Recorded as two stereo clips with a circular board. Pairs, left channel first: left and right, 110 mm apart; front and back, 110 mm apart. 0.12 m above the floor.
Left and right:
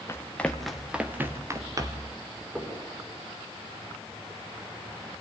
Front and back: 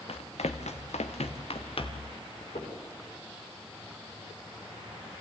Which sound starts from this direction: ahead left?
Running footsteps, at 0.1 s.